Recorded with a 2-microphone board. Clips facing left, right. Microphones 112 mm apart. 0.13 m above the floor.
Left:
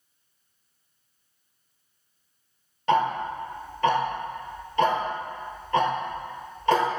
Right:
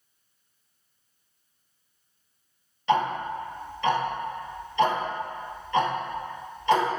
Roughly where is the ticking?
Left.